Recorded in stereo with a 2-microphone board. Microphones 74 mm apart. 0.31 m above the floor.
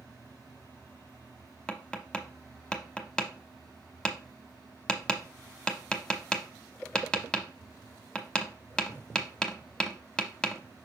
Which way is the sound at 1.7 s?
10° left (ahead or behind).